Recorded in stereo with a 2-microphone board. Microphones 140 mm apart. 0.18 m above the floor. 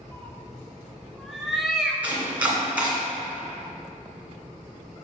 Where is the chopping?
10° right (ahead or behind), 2 m.